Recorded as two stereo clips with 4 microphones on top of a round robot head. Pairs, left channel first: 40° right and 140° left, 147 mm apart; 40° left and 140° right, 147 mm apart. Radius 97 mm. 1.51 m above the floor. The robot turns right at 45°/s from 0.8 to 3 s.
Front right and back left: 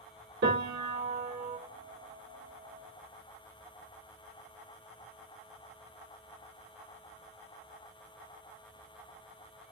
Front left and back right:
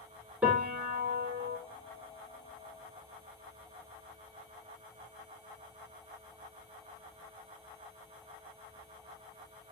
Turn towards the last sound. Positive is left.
turn(degrees=-120)